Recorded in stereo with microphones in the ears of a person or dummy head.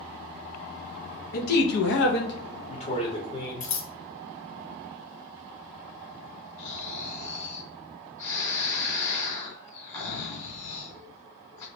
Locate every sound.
1.3 s a man speaking: 50° left (ahead or behind), 0.8 m; by 3.7 s 25° left (ahead or behind), 1.1 m
3.6 s scissors: 45° left (ahead or behind), 0.5 m
6.6 s snoring: 25° left (ahead or behind), 1.8 m